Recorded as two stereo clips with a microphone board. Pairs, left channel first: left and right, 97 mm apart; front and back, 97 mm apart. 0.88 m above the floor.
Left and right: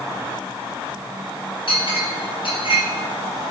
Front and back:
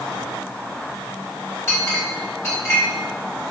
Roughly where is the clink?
Ahead left.